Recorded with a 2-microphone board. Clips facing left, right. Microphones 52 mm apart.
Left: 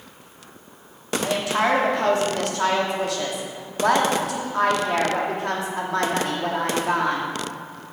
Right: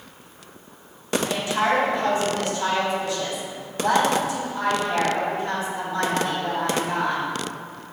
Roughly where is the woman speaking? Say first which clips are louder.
Left 2 dB; left.